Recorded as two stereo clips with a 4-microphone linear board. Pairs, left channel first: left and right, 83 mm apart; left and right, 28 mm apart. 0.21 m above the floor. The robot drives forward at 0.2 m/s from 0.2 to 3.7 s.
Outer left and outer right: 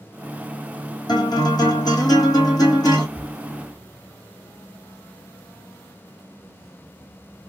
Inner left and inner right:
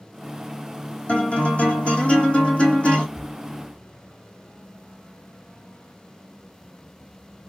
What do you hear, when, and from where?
1.1 s a guitar: 55° left (ahead or behind), 1.6 m; by 3.0 s 45° left (ahead or behind), 1.9 m
3.1 s a cupboard door: centre (ahead or behind), 1.0 m